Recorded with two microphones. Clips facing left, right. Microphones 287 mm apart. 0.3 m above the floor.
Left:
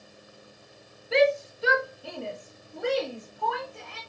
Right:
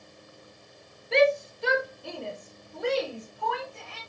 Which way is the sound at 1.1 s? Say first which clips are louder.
Even; 5° left (ahead or behind).